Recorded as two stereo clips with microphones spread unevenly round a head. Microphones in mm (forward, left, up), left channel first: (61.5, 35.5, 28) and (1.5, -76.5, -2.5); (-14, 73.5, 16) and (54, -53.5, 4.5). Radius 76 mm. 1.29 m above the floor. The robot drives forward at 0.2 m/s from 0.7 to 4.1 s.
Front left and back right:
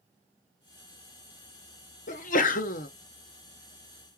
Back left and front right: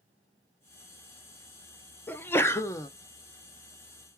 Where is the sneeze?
40° left, 0.8 m; by 2.9 s 50° left, 0.7 m.